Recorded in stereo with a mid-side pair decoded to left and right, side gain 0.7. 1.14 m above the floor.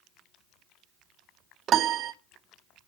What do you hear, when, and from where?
1.7 s a piano: 45° right, 0.7 m